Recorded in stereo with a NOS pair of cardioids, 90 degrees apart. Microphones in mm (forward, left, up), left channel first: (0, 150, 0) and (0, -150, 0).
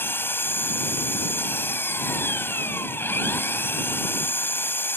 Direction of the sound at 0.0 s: 5° left.